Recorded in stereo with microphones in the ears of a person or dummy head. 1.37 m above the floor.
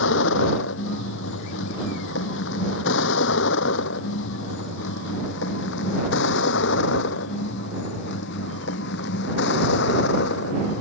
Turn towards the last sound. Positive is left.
turn(degrees=65)  # may be behind; listen again after turning